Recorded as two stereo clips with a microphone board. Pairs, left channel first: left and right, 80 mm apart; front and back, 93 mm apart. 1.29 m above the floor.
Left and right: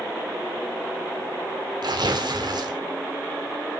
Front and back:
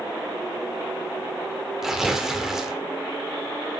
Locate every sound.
1.8 s tearing paper: 95° right, 1.6 m